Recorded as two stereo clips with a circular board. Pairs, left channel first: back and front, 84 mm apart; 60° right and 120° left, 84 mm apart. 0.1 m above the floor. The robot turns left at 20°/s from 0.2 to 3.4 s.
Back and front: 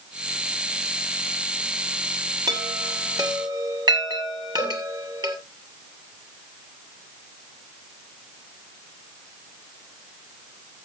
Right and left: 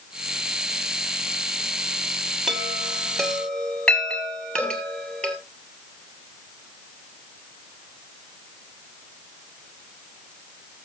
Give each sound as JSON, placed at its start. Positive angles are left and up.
{"t": 2.5, "sound": "a chime", "azimuth_deg": 40, "distance_m": 2.5}
{"t": 4.6, "sound": "a cowbell", "azimuth_deg": -135, "distance_m": 4.0}